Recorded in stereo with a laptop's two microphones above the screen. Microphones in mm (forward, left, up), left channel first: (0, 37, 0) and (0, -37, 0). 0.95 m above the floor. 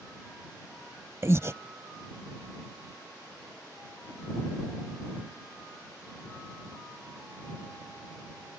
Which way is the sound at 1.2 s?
40° right (ahead or behind).